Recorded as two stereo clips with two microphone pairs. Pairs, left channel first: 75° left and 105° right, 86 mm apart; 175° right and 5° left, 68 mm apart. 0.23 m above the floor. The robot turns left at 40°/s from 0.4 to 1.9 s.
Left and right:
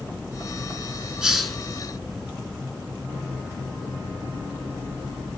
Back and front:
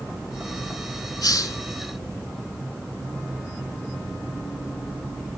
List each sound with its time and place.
1.2 s a hiss: 175° left, 0.7 m; by 1.6 s 160° left, 0.7 m